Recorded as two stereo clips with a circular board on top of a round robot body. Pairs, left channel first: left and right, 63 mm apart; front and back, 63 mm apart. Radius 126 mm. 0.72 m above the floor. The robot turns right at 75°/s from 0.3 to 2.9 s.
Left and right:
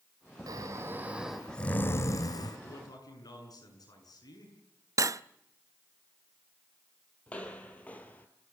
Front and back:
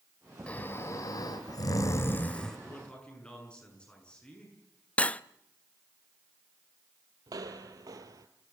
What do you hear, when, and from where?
0.5 s snoring: 70° right, 2.5 m; by 2.6 s 85° left, 2.5 m
2.6 s a man speaking: 50° left, 8 m; by 4.6 s 75° left, 8 m
5.0 s cutlery clinking: 65° right, 0.6 m
7.3 s footsteps: 160° left, 1.7 m; by 8.3 s 155° left, 1.3 m